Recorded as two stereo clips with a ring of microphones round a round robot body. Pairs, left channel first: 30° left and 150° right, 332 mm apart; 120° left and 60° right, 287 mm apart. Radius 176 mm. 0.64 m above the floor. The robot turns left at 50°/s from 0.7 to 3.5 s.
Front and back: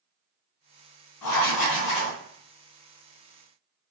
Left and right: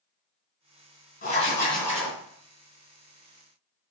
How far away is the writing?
About 1.3 m.